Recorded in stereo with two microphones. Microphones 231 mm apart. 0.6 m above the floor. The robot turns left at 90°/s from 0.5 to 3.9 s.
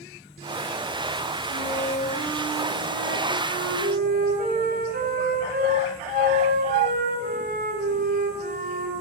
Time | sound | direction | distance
1.5 | a flute | 80° left | 7.5 m